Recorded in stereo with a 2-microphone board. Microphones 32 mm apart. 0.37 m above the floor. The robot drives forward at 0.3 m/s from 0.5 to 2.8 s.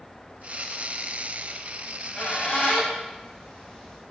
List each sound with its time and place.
1.8 s a squeak: 45° left (ahead or behind), 1.6 m; by 4.0 s 40° left (ahead or behind), 1.7 m